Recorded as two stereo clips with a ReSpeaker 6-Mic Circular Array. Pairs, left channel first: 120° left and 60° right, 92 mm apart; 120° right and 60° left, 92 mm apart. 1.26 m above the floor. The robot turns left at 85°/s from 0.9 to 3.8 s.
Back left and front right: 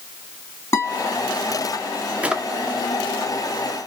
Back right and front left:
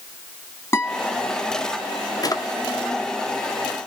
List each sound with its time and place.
0.7 s a guitar: 175° left, 2.5 m; by 1.2 s 155° left, 2.5 m
2.2 s a drawer: 125° right, 0.5 m; by 2.4 s 145° right, 0.5 m